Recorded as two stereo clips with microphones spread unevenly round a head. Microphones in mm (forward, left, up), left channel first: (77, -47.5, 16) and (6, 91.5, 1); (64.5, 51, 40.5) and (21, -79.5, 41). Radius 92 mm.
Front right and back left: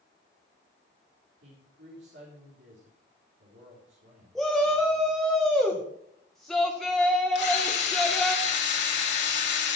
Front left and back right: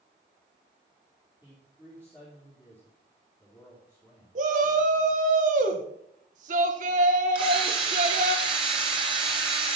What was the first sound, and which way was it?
A man speaking, 150° left.